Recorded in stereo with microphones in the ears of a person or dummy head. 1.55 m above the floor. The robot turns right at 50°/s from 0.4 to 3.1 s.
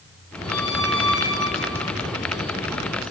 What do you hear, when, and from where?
0.5 s a squeak: 55° left, 4 m; by 1.9 s 125° left, 4 m